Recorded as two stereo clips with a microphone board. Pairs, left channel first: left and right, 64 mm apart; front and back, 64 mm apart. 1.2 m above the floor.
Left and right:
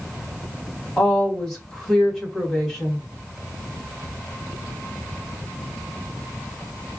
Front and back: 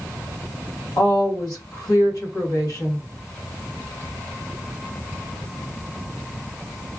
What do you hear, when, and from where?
1.0 s a woman speaking: 10° left, 1.5 m